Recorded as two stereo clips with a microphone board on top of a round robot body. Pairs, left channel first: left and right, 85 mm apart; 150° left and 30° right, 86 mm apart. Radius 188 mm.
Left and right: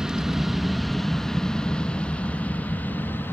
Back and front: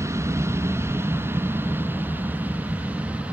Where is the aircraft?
10° right; by 3.3 s 35° left.